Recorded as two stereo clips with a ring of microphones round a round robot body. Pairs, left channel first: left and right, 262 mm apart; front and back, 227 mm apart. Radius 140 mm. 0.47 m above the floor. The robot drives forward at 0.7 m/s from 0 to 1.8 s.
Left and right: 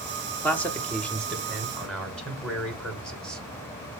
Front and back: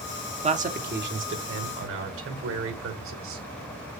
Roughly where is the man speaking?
Behind.